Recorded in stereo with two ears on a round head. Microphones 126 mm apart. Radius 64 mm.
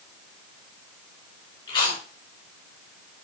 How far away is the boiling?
No boiling in this recording.